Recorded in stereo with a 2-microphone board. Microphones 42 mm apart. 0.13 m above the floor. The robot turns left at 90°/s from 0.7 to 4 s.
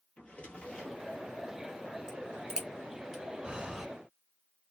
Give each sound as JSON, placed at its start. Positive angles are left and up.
{"t": 0.2, "sound": "a drawer", "azimuth_deg": 30, "distance_m": 1.2}
{"t": 2.1, "sound": "a crack", "side_deg": -15, "distance_m": 1.4}
{"t": 3.4, "sound": "breathing", "side_deg": -20, "distance_m": 1.0}